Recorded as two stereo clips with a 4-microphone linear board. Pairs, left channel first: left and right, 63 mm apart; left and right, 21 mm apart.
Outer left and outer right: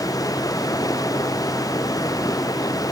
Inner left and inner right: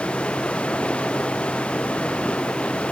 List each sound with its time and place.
0.0 s running water: 75° left (ahead or behind)